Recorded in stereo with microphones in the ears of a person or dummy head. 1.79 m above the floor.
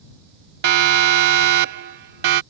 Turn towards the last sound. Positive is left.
turn(degrees=-65)  # may be behind; listen again after turning